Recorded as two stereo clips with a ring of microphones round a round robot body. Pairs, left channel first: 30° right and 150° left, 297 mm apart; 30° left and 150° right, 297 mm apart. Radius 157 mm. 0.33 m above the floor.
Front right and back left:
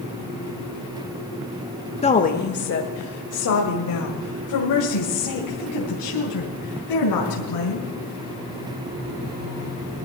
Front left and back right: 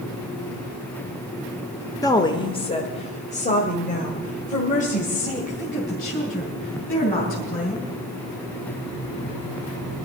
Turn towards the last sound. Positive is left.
turn(degrees=-35)